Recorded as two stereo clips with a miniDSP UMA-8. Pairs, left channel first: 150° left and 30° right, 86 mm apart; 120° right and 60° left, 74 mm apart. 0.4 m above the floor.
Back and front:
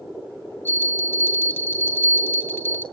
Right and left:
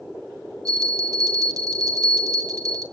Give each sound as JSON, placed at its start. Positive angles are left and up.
{"t": 0.7, "sound": "a bell", "azimuth_deg": 85, "distance_m": 2.0}